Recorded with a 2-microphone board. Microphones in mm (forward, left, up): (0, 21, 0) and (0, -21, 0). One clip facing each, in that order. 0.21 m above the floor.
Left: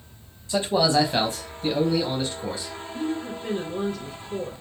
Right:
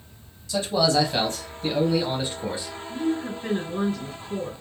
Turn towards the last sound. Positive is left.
turn(degrees=-55)  # may be behind; listen again after turning